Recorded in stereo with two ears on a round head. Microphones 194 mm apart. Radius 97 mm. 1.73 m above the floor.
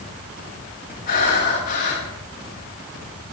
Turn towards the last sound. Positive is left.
turn(degrees=40)  # may be behind; listen again after turning